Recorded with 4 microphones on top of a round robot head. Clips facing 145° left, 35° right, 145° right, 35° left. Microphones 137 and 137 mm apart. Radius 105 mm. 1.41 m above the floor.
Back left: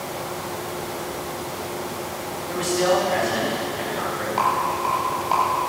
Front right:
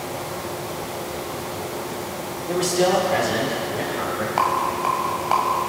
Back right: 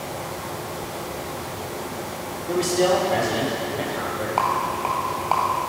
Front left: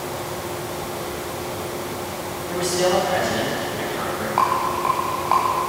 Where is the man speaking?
90° right, 4 m.